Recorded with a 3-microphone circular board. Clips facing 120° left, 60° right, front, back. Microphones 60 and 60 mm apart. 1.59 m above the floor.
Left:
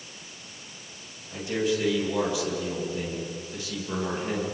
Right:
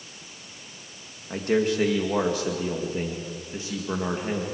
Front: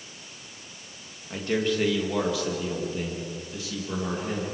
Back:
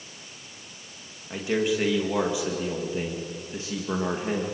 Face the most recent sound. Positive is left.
turn(degrees=-130)